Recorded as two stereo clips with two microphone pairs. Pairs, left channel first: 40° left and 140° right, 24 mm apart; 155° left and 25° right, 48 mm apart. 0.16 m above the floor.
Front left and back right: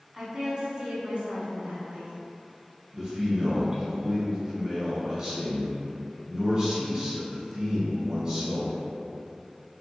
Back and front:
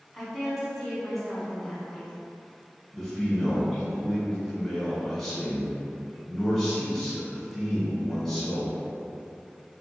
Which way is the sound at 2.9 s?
130° right.